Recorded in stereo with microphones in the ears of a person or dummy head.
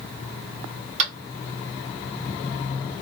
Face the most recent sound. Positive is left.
turn(degrees=-40)  # may be behind; listen again after turning